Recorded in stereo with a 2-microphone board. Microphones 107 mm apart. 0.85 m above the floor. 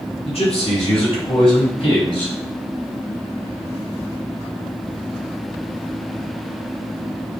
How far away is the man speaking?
About 4.5 m.